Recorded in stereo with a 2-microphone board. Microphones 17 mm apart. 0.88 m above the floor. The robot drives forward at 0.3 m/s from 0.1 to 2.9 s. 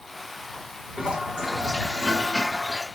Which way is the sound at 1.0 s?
50° right (ahead or behind).